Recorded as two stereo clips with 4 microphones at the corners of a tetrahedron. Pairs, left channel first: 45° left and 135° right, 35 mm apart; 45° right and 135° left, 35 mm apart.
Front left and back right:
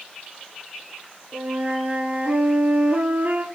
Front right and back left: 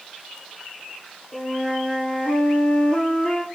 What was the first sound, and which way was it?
A flute, 90° right.